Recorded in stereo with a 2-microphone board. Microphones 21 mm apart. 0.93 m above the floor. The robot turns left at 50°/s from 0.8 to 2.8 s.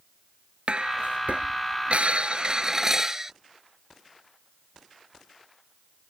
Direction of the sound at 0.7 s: 55° right.